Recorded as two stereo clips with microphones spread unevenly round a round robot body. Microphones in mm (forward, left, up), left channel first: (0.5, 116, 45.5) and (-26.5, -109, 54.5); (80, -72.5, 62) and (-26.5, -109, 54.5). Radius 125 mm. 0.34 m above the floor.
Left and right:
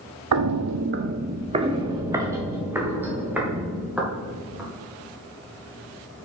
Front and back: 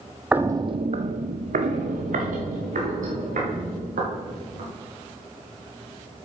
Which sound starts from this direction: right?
Footsteps, at 0.3 s.